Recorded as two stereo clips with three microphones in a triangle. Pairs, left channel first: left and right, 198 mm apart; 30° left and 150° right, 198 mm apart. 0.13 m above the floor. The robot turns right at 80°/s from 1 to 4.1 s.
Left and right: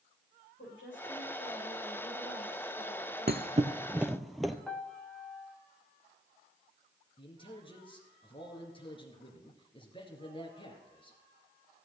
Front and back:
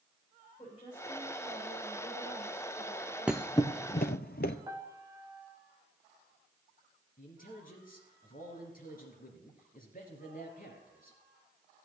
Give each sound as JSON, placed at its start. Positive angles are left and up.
{"t": 0.6, "sound": "a woman speaking", "azimuth_deg": 90, "distance_m": 8.0}
{"t": 3.3, "sound": "a thud", "azimuth_deg": -65, "distance_m": 0.7}
{"t": 4.7, "sound": "a piano", "azimuth_deg": 165, "distance_m": 0.6}
{"t": 7.2, "sound": "a man speaking", "azimuth_deg": 40, "distance_m": 2.5}